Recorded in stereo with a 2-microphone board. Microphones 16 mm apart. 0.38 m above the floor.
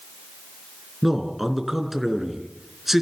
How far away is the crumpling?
No crumpling in this recording.